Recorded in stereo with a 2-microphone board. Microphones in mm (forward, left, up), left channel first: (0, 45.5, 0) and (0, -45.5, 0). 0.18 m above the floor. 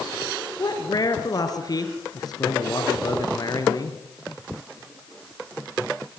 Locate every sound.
0.6 s a man speaking: 45° left (ahead or behind), 3.5 m